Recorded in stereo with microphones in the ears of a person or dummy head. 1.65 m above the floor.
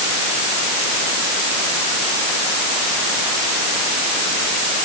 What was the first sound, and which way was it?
Only background noise.